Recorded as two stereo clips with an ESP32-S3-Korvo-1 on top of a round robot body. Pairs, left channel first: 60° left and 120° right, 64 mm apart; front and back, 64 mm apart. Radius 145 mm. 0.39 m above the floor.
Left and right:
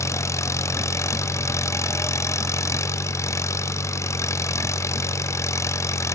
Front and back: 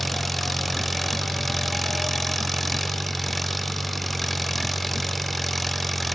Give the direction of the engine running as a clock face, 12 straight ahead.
9 o'clock.